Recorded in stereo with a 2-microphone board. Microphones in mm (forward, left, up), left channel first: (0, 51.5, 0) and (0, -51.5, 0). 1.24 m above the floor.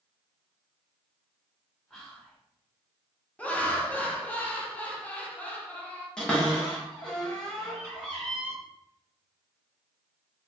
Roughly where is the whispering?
Centre.